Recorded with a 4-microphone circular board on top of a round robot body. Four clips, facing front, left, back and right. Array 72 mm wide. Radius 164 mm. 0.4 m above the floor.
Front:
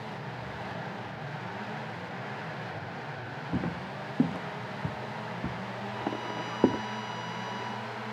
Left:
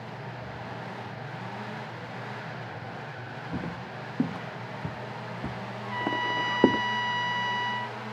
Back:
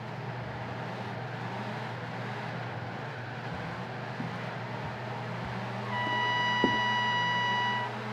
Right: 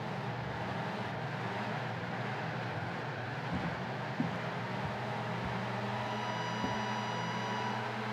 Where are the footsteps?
25° left; by 6.8 s 70° left.